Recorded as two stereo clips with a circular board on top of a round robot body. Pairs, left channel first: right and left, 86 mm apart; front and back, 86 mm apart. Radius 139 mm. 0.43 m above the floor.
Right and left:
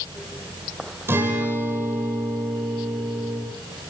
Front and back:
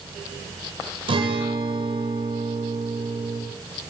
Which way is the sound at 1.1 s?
155° left.